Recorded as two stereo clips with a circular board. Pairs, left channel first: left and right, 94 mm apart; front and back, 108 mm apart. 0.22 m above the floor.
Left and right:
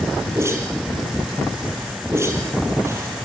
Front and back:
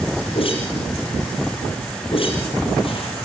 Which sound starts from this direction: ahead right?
A whoosh, at 0.3 s.